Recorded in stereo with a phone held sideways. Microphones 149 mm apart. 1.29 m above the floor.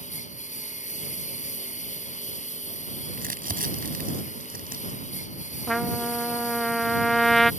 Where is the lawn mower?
50° left (ahead or behind).